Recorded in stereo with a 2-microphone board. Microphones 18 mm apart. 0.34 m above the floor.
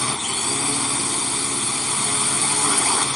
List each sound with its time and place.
0.0 s a drone: 5° left (ahead or behind)